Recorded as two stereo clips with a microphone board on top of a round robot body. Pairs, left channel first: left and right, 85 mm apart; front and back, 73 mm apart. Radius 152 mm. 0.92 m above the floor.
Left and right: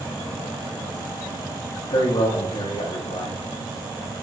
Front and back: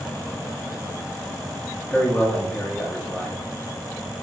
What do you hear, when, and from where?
1.9 s a man speaking: 75° left, 1.7 m